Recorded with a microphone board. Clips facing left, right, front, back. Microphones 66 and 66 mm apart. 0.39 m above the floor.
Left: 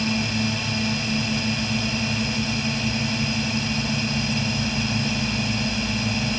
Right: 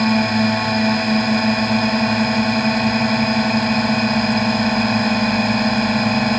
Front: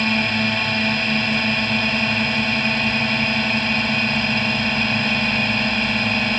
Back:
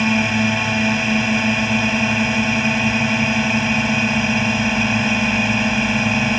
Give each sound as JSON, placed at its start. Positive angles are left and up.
{"t": 0.0, "sound": "a drone", "azimuth_deg": -100}